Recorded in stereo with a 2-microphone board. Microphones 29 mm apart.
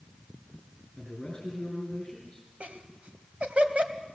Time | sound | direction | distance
1.0 | a man speaking | 20° left (ahead or behind) | 4.5 m
2.6 | laughter | 50° right (ahead or behind) | 1.9 m